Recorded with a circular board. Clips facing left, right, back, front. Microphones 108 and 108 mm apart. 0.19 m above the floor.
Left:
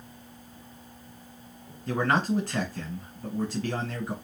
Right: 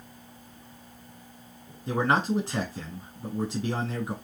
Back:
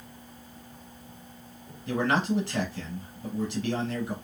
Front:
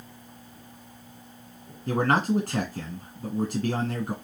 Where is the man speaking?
20° right, 1.3 m.